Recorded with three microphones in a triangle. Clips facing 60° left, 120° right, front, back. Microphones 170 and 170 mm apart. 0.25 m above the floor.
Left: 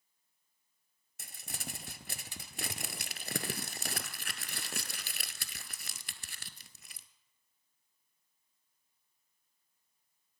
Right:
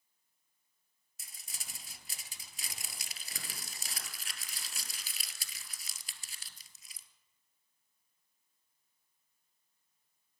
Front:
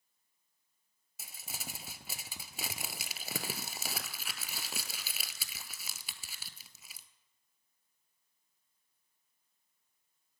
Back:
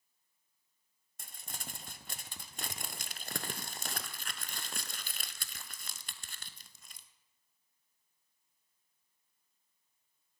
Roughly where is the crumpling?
Left.